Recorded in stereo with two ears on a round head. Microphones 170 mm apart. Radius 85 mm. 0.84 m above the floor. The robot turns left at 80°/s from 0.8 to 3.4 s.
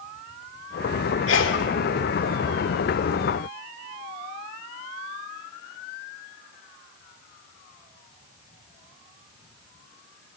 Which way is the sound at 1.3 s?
80° left.